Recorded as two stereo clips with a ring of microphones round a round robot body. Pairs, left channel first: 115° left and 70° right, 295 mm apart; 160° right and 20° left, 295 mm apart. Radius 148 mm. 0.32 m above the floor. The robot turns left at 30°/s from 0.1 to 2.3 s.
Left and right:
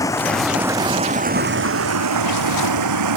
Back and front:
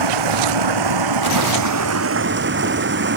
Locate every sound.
0.0 s running water: 30° left; by 3.2 s 35° right